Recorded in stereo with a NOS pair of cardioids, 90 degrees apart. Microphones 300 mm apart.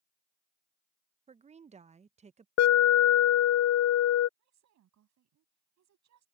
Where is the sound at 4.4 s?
70° right.